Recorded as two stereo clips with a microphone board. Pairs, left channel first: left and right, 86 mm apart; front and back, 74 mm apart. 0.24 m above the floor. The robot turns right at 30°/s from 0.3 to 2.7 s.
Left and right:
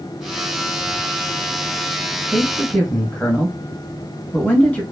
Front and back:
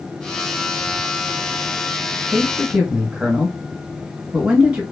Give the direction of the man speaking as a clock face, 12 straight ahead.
8 o'clock.